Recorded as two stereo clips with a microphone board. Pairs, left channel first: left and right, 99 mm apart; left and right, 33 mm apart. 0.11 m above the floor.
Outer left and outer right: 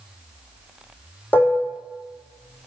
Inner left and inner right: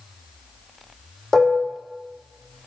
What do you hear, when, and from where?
1.3 s dishes clattering: 20° left (ahead or behind), 3.5 m